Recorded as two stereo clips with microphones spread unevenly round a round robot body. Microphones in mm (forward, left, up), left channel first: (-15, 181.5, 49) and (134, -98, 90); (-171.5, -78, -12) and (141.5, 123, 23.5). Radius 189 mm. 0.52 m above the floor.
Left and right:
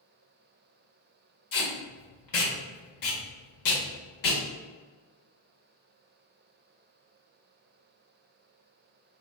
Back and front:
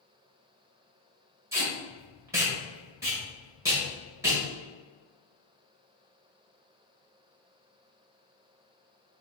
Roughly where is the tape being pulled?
Behind left.